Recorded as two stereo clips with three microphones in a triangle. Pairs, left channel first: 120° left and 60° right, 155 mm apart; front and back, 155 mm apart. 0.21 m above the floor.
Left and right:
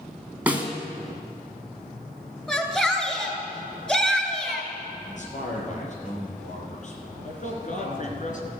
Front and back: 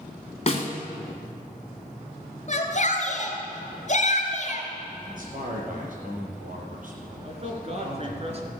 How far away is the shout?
About 2.5 m.